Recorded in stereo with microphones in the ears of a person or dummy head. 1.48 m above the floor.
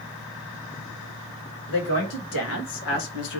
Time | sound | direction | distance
1.7 | a woman speaking | 80° left | 2.5 m